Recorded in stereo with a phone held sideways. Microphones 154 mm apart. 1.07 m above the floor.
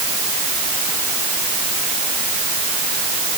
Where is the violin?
No violin in this recording.